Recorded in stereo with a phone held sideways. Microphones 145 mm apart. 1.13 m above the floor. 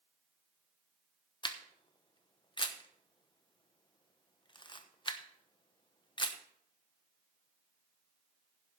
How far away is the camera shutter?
About 0.9 m.